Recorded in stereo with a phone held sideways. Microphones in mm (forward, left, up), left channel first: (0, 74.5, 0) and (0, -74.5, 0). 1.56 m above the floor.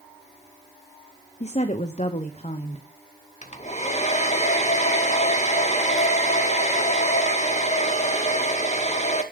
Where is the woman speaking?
50° left (ahead or behind), 0.9 m.